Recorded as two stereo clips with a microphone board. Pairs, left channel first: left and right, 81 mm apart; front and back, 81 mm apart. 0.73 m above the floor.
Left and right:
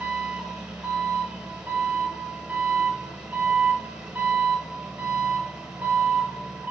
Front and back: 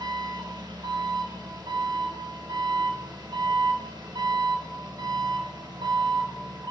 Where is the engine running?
170° right, 0.8 m.